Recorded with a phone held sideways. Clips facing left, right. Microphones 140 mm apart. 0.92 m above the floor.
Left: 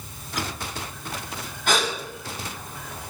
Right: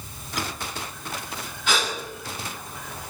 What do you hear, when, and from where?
1.7 s a gasp: 55° left (ahead or behind), 6 m